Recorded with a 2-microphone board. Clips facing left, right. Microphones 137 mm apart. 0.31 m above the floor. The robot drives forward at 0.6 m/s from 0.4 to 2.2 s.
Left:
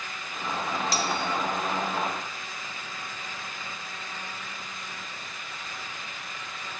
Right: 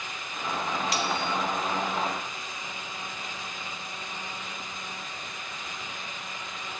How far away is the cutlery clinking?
About 0.7 m.